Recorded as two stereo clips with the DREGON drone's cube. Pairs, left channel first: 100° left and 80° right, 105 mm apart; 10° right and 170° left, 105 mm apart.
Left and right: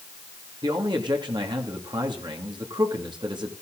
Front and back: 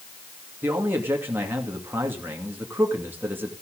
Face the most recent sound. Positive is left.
turn(degrees=-120)